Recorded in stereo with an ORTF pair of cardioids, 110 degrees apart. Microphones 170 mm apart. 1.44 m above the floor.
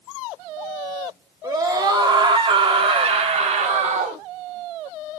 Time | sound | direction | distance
1.4 | a scream | 20° right | 3.5 m